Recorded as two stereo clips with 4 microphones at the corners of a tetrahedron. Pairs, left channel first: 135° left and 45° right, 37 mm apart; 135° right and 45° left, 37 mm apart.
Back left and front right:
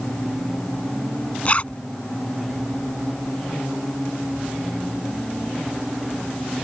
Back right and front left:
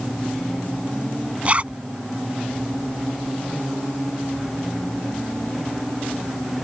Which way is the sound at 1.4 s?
90° left.